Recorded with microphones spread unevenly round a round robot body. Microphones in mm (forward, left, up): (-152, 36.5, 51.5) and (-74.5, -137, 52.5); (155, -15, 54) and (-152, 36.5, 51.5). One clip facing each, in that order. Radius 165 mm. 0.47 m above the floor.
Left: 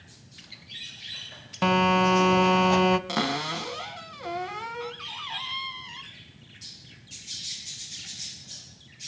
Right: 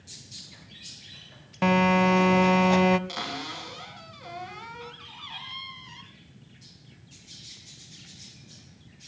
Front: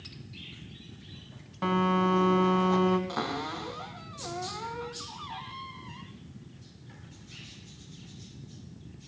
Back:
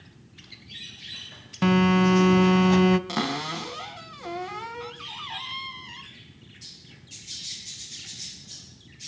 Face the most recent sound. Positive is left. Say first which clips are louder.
# left 8 dB, back 4 dB
turn(degrees=135)